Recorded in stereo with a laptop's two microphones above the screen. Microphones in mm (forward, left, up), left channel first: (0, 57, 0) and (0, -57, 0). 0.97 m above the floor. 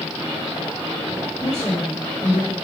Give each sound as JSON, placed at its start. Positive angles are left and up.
{"t": 1.4, "sound": "a woman speaking", "side_deg": 70, "distance_m": 1.6}